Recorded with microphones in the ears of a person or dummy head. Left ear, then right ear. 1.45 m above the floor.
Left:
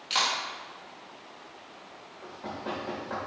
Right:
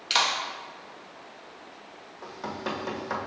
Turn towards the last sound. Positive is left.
turn(degrees=-75)  # may be behind; listen again after turning